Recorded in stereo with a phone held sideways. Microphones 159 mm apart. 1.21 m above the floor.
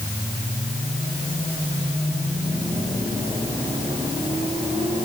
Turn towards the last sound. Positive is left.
No sound to turn to.